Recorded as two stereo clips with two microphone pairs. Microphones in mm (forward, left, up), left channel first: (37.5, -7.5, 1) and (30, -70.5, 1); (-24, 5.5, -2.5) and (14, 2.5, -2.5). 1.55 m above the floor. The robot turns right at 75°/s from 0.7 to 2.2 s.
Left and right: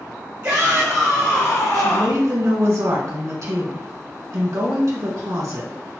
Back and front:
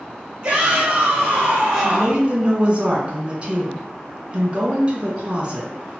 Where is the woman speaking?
105° right, 1.5 m; by 5.7 s 70° right, 1.5 m.